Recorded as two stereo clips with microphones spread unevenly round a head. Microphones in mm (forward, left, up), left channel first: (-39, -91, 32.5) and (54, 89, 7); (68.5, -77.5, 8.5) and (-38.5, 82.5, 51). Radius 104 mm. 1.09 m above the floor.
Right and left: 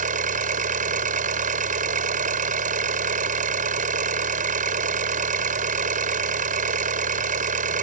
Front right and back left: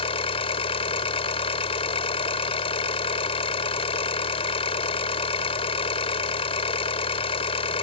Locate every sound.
0.0 s an engine running: 10° left